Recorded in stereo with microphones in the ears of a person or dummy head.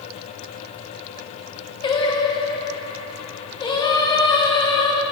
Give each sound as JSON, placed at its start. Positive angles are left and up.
{"t": 1.8, "sound": "singing", "side_deg": 20, "distance_m": 1.4}